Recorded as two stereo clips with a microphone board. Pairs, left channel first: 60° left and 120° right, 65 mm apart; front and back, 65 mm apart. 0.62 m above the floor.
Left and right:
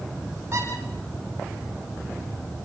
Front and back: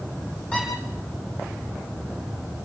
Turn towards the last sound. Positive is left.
turn(degrees=-70)